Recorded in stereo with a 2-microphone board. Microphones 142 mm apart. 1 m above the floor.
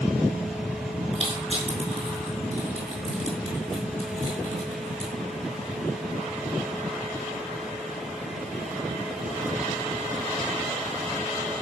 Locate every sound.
1.1 s crushing: 45° right (ahead or behind), 5 m